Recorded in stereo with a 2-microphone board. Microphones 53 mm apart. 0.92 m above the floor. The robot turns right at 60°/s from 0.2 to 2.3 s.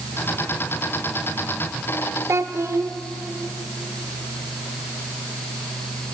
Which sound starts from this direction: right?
A child speaking, at 2.3 s.